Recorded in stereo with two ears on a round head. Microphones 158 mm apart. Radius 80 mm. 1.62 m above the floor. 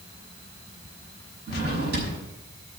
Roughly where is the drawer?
Right.